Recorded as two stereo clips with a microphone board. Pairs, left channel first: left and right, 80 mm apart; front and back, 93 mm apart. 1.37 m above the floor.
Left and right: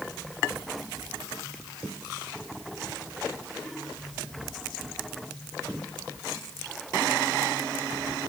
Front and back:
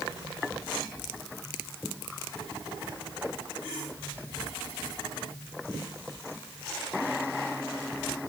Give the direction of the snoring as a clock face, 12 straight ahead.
No snoring in this recording.